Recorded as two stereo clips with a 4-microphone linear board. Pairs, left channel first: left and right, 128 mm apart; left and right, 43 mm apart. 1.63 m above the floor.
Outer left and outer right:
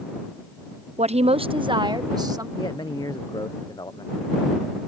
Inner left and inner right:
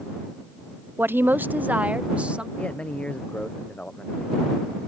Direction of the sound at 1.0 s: 65° right (ahead or behind).